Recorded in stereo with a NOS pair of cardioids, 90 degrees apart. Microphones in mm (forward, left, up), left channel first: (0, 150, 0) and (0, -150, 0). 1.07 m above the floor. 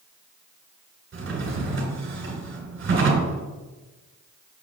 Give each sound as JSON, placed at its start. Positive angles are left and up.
{"t": 1.1, "sound": "a drawer", "azimuth_deg": -45, "distance_m": 2.5}